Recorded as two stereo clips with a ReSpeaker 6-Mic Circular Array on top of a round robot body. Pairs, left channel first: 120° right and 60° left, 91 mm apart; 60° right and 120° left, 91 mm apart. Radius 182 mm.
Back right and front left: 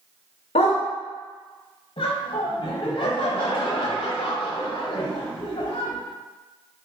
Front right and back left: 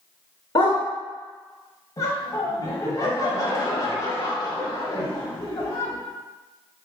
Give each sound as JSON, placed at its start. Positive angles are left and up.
{"t": 0.6, "sound": "a dog barking", "azimuth_deg": -110, "distance_m": 0.9}
{"t": 2.0, "sound": "laughter", "azimuth_deg": -110, "distance_m": 1.1}